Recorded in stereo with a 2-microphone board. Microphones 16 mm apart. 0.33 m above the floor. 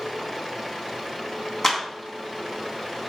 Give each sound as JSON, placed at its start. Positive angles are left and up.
{"t": 1.6, "sound": "a clap", "side_deg": 30, "distance_m": 3.0}